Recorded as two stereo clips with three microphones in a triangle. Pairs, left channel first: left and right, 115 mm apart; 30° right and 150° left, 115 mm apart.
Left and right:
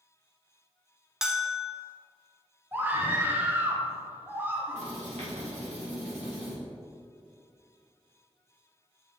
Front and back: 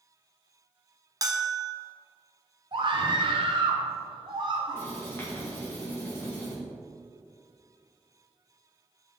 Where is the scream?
165° right, 1.0 m.